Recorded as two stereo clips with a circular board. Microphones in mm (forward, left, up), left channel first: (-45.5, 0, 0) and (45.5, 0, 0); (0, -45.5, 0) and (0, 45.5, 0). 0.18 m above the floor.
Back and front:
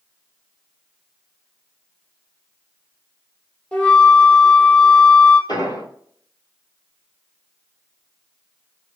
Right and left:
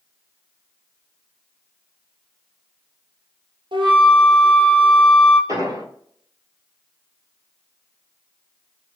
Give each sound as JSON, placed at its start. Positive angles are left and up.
{"t": 3.7, "sound": "a flute", "azimuth_deg": 105, "distance_m": 1.5}
{"t": 5.5, "sound": "an explosion", "azimuth_deg": 140, "distance_m": 1.4}